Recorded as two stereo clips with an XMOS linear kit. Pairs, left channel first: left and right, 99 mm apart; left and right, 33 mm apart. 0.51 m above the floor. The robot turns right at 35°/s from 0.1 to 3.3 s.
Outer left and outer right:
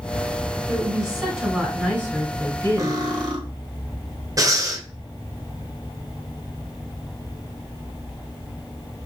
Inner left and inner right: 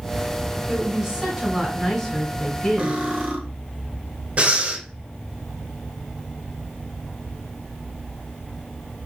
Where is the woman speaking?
25° right, 1.8 m; by 3.0 s 60° left, 1.8 m.